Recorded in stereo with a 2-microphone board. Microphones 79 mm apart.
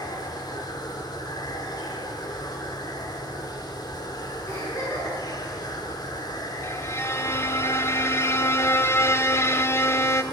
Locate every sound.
0.0 s running water: 50° left (ahead or behind), 2.5 m
4.5 s a giggle: 35° left (ahead or behind), 10 m
6.6 s a violin: 35° left (ahead or behind), 1.0 m